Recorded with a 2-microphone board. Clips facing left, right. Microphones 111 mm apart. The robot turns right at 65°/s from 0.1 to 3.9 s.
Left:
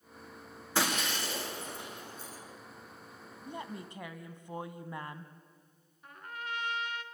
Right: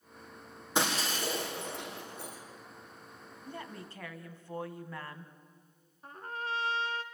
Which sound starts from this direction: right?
A trumpet, at 6.0 s.